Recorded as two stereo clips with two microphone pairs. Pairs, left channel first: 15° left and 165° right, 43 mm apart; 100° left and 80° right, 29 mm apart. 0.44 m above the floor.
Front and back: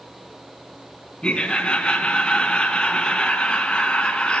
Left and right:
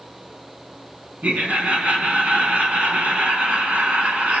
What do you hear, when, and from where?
1.2 s laughter: 50° right, 4.5 m